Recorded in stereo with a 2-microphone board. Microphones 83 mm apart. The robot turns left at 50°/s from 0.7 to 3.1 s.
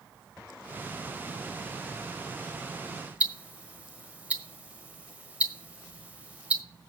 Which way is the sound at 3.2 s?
15° right (ahead or behind).